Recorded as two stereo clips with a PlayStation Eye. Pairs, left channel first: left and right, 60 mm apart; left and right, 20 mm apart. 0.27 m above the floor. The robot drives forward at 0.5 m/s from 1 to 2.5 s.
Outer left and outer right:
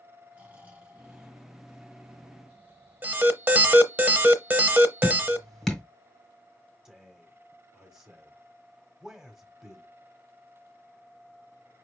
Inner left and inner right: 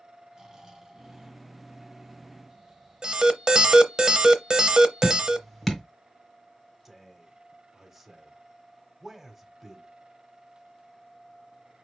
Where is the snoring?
25° right (ahead or behind), 2.0 m; by 3.5 s 20° right (ahead or behind), 2.5 m.